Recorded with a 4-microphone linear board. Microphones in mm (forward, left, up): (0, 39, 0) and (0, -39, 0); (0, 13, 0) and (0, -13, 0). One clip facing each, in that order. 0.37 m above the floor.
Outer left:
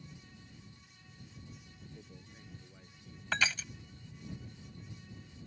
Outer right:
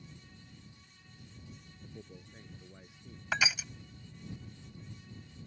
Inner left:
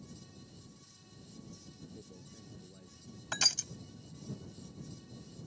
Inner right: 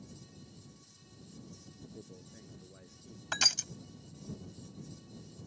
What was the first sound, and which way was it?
A man speaking, 20° right (ahead or behind).